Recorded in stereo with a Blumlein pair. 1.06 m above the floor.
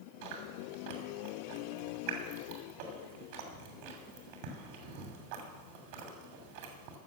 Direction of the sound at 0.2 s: 45° right.